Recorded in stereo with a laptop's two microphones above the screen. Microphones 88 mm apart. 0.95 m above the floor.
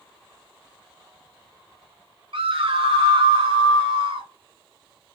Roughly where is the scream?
Right.